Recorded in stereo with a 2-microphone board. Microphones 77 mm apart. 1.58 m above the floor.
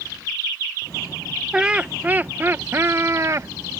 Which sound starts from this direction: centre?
Laughter, at 1.5 s.